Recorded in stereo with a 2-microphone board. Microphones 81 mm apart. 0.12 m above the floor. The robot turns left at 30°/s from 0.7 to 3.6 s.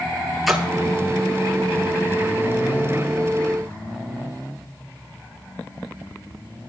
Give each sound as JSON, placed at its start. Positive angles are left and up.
{"t": 0.5, "sound": "a splash", "side_deg": 0, "distance_m": 1.1}